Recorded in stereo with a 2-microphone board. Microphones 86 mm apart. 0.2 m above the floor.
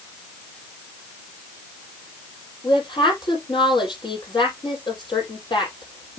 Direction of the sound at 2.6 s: 65° left (ahead or behind).